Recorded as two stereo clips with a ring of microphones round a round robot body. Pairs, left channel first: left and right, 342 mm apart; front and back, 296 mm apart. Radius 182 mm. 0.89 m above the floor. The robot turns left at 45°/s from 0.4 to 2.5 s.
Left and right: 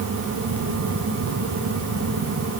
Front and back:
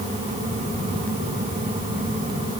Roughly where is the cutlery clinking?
I don't hear cutlery clinking.